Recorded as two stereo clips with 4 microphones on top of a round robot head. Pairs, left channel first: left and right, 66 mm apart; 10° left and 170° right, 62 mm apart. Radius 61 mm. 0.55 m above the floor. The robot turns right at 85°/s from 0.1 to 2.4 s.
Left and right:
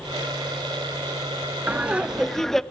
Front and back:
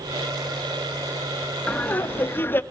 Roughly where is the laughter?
Ahead right.